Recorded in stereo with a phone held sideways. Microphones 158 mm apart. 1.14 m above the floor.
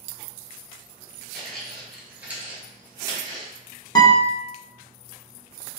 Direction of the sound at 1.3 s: 5° left (ahead or behind).